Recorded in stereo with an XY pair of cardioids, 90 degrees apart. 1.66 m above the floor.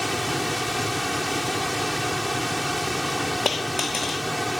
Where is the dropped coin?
40° left.